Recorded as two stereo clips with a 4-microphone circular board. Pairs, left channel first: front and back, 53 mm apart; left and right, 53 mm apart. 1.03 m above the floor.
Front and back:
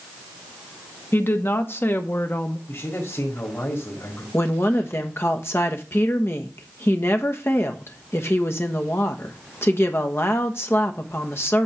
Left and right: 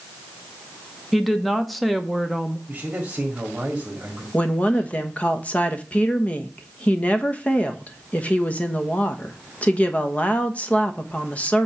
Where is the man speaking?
25° right, 1.8 m.